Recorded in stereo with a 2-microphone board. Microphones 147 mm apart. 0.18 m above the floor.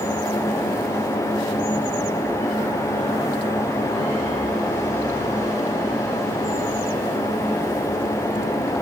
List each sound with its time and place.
Only background noise.